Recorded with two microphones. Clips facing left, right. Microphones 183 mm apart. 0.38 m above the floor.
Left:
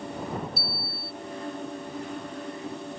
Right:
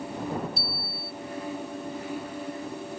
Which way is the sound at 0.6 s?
5° left (ahead or behind).